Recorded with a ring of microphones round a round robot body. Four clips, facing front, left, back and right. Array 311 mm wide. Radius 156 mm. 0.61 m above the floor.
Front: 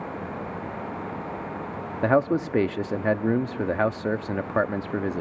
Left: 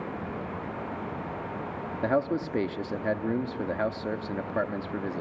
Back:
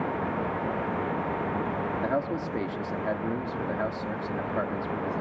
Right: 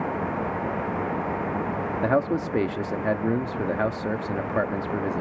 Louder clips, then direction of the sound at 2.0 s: Right 2 dB, front 11 dB; 15° right.